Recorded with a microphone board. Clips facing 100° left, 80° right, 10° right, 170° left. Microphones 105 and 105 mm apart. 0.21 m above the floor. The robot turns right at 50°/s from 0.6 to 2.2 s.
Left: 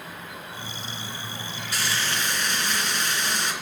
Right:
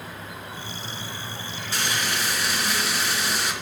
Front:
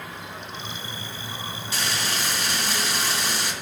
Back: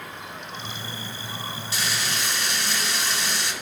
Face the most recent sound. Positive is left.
turn(degrees=0)